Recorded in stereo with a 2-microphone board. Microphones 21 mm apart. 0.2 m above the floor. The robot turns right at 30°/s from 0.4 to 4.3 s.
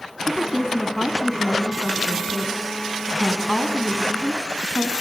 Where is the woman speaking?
20° right (ahead or behind), 2 m; by 4.9 s 25° right (ahead or behind), 2 m.